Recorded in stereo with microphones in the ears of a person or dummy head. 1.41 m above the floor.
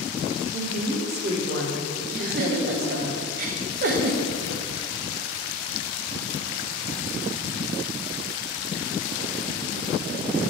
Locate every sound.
0.5 s a woman speaking: 60° right (ahead or behind), 1.4 m
2.1 s a giggle: 60° right (ahead or behind), 0.9 m